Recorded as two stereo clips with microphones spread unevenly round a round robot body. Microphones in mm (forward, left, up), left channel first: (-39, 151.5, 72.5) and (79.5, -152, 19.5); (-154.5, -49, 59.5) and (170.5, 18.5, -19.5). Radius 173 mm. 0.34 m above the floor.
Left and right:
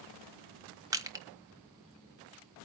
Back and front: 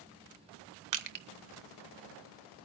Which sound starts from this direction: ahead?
Crushing, at 0.9 s.